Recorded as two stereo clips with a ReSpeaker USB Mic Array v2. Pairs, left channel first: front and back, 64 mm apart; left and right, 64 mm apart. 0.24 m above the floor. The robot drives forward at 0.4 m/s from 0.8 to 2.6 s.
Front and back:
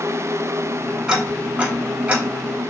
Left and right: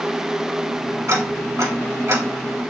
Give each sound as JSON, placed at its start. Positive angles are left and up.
{"t": 1.1, "sound": "ticking", "azimuth_deg": -105, "distance_m": 1.6}